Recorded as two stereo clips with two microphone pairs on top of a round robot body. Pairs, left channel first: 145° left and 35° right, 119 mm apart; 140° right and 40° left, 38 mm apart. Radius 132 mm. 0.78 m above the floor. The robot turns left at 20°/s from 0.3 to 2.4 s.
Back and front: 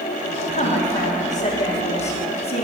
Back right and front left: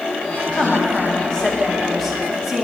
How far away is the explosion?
No explosion in this recording.